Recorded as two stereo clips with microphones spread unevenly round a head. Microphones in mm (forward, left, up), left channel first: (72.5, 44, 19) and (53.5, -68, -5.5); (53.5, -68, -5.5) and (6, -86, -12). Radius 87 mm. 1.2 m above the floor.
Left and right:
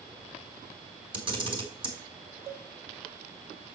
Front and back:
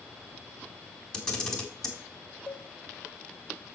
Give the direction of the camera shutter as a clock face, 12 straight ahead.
2 o'clock.